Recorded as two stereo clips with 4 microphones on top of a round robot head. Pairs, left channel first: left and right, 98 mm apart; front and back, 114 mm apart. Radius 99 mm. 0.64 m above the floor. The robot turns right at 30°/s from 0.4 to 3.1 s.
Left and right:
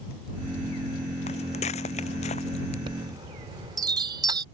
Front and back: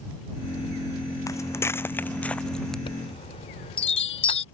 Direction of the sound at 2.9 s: 45° right.